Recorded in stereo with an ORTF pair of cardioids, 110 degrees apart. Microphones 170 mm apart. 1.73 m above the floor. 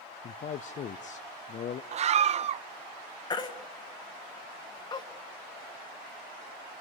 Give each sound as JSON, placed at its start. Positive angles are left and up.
{"t": 0.2, "sound": "a man speaking", "azimuth_deg": 45, "distance_m": 0.6}
{"t": 1.9, "sound": "a scream", "azimuth_deg": -40, "distance_m": 0.5}
{"t": 3.3, "sound": "a baby crying", "azimuth_deg": 25, "distance_m": 1.8}